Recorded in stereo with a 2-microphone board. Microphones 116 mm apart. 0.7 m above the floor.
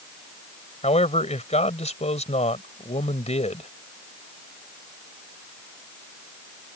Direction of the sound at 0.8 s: 75° left (ahead or behind).